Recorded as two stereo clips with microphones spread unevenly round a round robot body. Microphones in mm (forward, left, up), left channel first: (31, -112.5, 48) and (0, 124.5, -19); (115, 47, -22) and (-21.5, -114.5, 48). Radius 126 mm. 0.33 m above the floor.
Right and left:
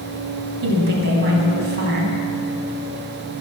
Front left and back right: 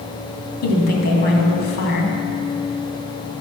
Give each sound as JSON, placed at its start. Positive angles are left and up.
{"t": 0.6, "sound": "a woman speaking", "azimuth_deg": 70, "distance_m": 2.0}